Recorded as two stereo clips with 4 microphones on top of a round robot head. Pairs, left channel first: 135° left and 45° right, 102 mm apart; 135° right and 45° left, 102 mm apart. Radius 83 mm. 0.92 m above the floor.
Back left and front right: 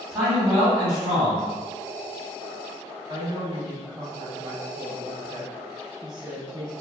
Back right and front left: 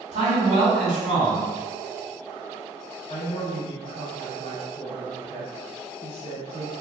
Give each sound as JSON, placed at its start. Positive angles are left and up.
{"t": 0.1, "sound": "a man speaking", "azimuth_deg": 30, "distance_m": 1.3}
{"t": 3.1, "sound": "a woman speaking", "azimuth_deg": -95, "distance_m": 1.8}